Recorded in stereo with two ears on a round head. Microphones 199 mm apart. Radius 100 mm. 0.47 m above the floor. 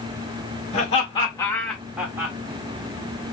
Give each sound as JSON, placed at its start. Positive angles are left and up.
{"t": 0.7, "sound": "laughter", "side_deg": 35, "distance_m": 1.6}